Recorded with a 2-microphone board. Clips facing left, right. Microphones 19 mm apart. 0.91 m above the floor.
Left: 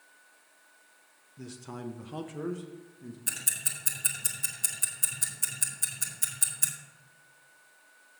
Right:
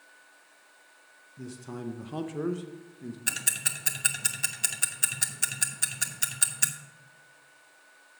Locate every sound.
1.4 s a man speaking: 15° left (ahead or behind), 0.7 m; by 3.2 s 25° right (ahead or behind), 1.0 m
3.3 s ticking: 35° right (ahead or behind), 1.0 m